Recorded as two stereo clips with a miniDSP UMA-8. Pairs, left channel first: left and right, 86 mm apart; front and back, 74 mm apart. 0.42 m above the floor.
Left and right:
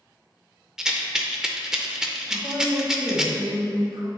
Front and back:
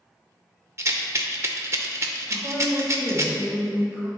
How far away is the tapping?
No tapping in this recording.